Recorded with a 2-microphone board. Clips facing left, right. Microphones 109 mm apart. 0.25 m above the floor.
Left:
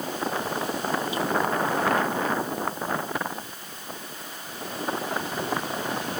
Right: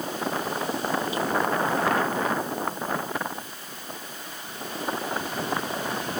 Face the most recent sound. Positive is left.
No sound to turn to.